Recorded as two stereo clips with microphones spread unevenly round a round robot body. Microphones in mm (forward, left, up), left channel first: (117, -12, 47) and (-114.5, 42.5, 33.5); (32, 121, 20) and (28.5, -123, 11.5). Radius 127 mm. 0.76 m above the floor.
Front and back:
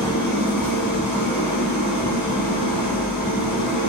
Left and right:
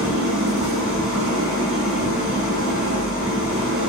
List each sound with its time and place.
0.0 s an engine running: straight ahead, 0.8 m